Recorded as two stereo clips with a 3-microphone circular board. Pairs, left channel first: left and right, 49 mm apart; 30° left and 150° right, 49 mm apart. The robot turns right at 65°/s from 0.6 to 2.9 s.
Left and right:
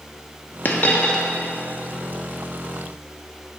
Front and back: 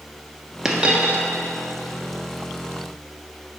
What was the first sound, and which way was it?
A dropped coin, 130° left.